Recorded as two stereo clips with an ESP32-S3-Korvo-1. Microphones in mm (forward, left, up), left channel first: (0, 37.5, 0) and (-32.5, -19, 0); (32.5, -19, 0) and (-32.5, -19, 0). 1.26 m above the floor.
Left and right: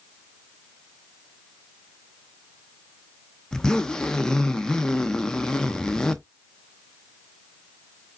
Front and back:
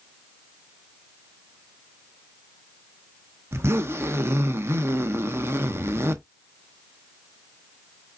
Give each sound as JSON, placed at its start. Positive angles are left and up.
{"t": 3.5, "sound": "a zipper", "azimuth_deg": 140, "distance_m": 0.6}